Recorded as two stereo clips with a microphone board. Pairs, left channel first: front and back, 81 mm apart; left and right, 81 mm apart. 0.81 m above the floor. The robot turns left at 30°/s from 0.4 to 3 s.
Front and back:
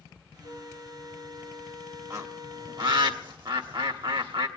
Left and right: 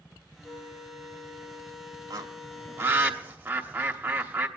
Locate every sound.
0.4 s a flute: 125° right, 2 m; by 3.1 s 160° left, 2 m
2.1 s a bird: 130° right, 1.0 m; by 4.5 s 160° right, 1.0 m